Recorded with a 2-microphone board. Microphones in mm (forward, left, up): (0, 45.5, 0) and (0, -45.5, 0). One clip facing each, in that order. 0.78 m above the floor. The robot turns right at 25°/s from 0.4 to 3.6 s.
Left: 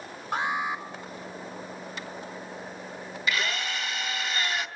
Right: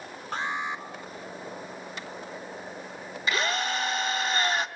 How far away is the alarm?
About 3 m.